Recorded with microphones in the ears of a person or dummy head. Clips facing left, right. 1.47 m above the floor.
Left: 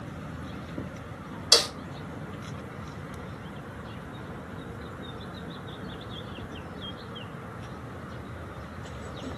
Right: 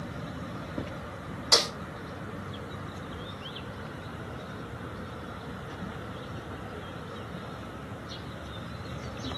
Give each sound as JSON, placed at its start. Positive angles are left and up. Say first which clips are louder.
{"t": 1.5, "sound": "a snare drum", "louder": "left 1 dB", "side_deg": 10, "distance_m": 0.8}